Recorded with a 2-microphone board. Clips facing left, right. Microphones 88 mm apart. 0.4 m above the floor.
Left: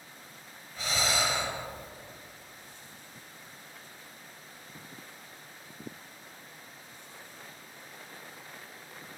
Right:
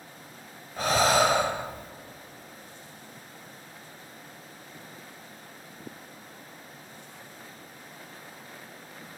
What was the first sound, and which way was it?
Breathing, 50° right (ahead or behind).